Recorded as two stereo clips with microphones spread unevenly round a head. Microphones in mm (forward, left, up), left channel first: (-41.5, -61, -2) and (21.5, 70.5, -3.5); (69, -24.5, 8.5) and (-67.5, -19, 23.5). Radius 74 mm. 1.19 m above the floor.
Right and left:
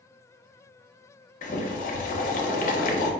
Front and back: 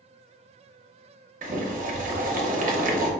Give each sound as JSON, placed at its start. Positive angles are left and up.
{"t": 1.4, "sound": "boiling", "azimuth_deg": -150, "distance_m": 0.6}